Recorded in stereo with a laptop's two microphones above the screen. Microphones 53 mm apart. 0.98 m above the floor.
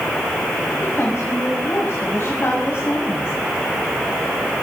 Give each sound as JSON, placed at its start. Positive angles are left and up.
{"t": 0.8, "sound": "a woman speaking", "side_deg": 45, "distance_m": 7.0}